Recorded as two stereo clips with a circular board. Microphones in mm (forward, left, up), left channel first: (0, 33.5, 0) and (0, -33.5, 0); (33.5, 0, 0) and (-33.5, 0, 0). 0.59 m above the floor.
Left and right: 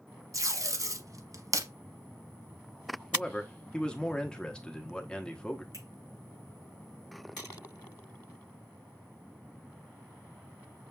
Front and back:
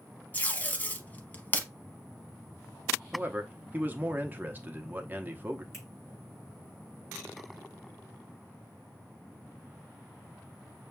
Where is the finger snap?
50° right, 4.5 m.